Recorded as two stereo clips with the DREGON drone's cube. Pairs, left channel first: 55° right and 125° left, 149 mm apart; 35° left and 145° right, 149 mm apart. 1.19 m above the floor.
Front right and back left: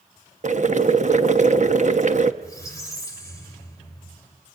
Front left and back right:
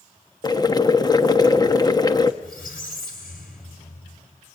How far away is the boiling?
About 1.0 m.